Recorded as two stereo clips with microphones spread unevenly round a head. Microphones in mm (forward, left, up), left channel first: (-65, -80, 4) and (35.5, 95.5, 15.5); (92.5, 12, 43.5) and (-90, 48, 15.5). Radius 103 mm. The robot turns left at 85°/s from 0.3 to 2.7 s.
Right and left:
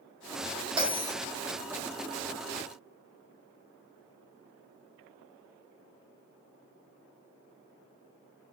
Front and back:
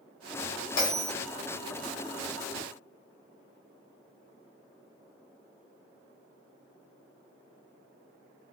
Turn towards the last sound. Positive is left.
turn(degrees=-170)